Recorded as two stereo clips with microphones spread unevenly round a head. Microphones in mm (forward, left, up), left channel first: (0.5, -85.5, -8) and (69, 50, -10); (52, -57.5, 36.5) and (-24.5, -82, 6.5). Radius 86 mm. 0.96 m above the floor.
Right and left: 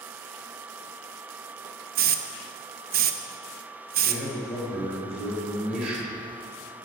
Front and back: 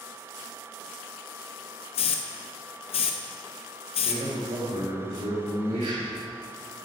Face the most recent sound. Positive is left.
turn(degrees=150)